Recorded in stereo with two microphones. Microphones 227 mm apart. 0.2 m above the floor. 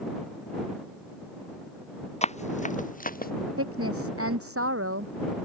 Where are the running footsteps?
30° left (ahead or behind); by 3.3 s 40° left (ahead or behind).